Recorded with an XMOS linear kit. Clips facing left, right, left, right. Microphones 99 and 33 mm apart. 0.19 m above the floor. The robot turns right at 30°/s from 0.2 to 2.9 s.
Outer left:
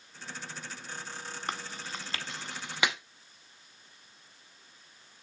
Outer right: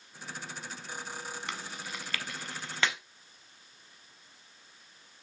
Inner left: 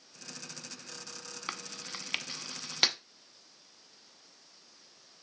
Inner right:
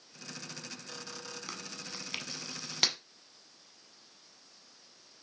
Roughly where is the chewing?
Left.